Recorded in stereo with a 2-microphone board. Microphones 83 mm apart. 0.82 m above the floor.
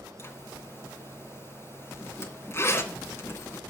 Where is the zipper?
35° left (ahead or behind), 2.5 m.